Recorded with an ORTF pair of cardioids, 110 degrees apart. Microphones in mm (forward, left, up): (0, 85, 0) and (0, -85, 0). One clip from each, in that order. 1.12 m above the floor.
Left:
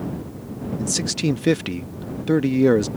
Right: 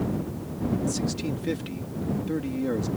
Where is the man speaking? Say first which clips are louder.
Left 5 dB; 65° left.